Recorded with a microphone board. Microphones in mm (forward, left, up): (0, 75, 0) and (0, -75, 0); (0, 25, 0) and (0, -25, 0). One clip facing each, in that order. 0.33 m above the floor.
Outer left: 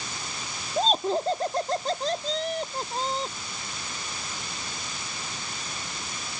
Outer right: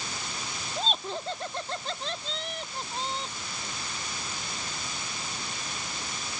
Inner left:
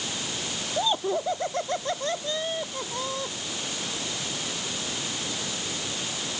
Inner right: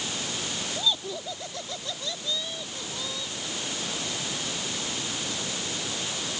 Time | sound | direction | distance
0.8 | laughter | 40° left (ahead or behind) | ?